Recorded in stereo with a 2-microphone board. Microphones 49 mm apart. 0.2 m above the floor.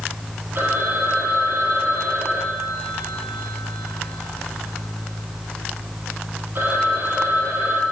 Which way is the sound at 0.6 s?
50° right (ahead or behind).